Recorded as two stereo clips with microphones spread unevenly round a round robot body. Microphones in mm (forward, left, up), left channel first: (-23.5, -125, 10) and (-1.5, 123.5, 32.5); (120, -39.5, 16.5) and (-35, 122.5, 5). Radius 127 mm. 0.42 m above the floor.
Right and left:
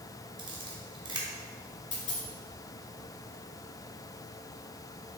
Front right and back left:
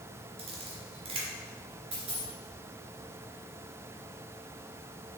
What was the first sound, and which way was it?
A camera shutter, 145° left.